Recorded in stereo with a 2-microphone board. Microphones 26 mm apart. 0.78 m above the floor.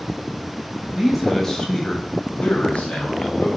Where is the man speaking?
15° right (ahead or behind), 0.6 m; by 3.5 s 70° left (ahead or behind), 1.3 m.